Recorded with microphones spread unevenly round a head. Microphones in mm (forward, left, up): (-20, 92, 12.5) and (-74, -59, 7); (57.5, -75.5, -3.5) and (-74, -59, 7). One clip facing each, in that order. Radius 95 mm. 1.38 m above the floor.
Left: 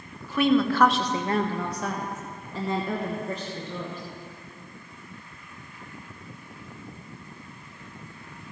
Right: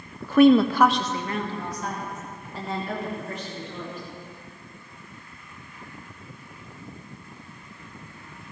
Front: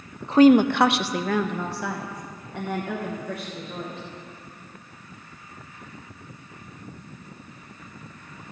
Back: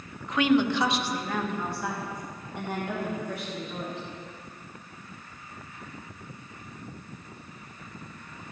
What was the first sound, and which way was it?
A woman speaking, 70° right.